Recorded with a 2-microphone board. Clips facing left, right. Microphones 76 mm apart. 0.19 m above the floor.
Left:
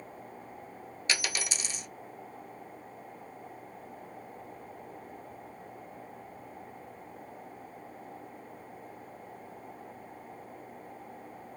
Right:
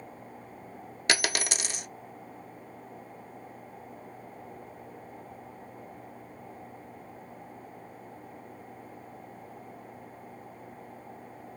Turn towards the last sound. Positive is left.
turn(degrees=-70)  # may be behind; listen again after turning